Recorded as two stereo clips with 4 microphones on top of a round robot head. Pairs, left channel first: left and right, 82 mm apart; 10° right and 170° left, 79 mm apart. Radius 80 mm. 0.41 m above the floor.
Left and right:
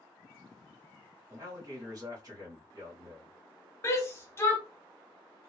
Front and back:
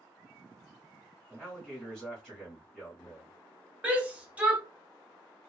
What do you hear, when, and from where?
1.3 s a man speaking: 105° right, 1.4 m
3.8 s a shout: 110° left, 1.2 m